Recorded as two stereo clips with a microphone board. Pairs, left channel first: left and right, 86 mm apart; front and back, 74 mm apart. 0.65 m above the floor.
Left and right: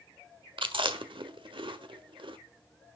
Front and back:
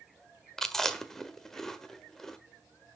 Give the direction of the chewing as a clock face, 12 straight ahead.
3 o'clock.